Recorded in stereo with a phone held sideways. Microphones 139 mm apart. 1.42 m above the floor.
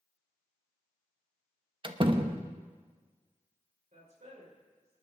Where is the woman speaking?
55° right (ahead or behind), 5.5 m.